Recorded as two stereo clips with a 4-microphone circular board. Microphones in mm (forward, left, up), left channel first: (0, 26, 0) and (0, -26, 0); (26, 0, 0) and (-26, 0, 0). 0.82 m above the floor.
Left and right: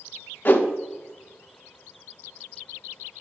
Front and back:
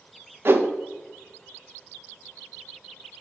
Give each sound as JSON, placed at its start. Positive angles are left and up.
{"t": 0.5, "sound": "a whoosh", "azimuth_deg": 140, "distance_m": 0.7}